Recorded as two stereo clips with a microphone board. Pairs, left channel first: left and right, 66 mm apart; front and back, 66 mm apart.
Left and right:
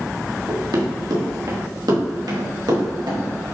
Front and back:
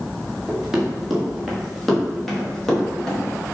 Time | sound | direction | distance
0.5 | running footsteps | 100° right | 3.5 m